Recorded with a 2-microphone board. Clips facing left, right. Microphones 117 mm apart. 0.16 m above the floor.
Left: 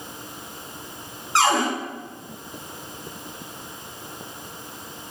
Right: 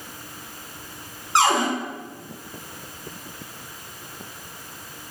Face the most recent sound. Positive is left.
turn(degrees=-20)  # may be behind; listen again after turning